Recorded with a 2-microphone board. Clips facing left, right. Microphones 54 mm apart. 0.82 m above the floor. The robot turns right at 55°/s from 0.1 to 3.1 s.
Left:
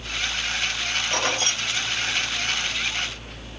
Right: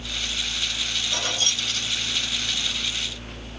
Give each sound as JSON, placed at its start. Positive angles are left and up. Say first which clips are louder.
{"t": 1.1, "sound": "keys jangling", "louder": "left 2 dB", "side_deg": 50, "distance_m": 0.7}